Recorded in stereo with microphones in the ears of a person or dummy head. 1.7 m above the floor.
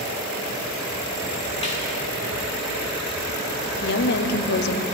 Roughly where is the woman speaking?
Left.